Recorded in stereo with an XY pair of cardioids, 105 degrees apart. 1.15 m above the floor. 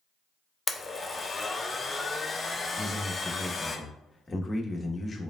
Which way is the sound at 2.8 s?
20° left.